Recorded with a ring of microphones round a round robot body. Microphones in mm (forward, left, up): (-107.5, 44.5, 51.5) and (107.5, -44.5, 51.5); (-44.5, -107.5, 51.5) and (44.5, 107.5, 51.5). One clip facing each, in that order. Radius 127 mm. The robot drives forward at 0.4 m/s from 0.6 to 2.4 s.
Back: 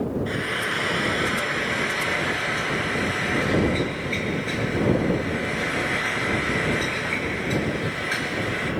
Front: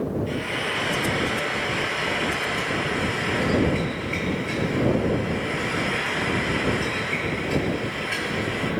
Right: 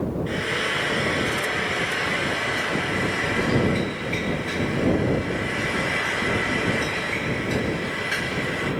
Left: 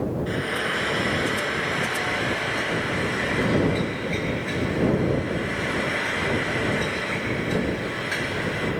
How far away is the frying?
About 4 m.